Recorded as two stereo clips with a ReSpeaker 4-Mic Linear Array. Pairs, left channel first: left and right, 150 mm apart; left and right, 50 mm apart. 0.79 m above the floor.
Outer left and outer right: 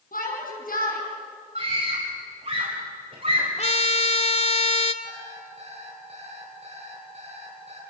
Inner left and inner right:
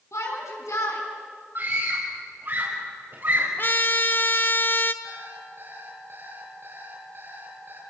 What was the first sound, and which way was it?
A shout, 75° left (ahead or behind).